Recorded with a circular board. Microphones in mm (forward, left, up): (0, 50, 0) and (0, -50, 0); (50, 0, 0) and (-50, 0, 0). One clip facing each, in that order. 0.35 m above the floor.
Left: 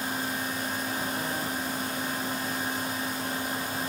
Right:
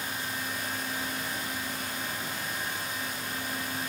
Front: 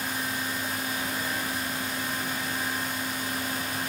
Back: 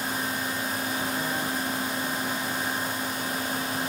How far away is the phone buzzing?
I don't hear a phone buzzing.